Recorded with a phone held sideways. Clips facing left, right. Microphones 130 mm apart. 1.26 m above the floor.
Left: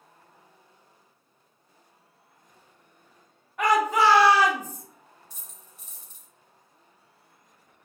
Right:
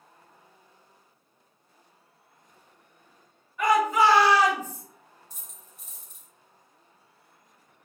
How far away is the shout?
About 1.2 m.